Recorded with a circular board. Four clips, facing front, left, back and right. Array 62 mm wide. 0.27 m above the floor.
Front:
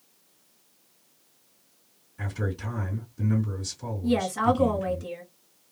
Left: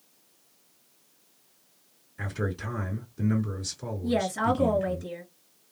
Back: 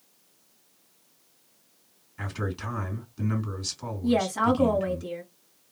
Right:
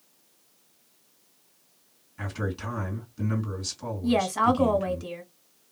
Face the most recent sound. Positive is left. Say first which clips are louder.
# right 3 dB, even
turn(degrees=-100)